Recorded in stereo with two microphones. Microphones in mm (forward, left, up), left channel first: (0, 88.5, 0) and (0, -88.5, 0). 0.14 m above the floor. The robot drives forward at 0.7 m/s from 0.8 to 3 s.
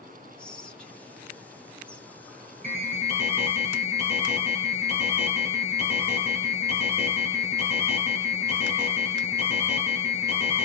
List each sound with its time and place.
0.4 s whispering: 5° left (ahead or behind), 1.1 m
2.6 s an alarm: 15° left (ahead or behind), 2.5 m